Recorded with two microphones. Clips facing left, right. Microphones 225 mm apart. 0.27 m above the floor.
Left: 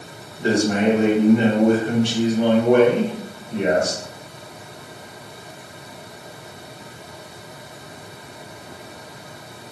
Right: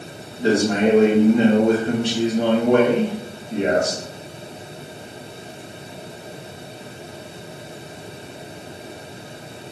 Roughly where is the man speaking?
Right.